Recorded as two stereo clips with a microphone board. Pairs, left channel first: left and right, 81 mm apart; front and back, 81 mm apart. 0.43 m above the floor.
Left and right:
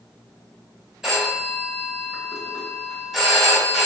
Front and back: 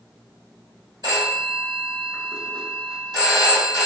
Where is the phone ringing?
175° right, 1.0 m.